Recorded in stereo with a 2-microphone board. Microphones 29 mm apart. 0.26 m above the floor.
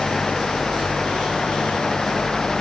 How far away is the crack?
I don't hear a crack.